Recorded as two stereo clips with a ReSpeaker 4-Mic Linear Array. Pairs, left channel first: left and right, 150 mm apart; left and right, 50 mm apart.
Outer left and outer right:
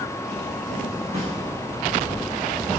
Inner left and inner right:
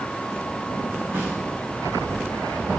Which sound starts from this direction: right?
A snare drum, at 1.1 s.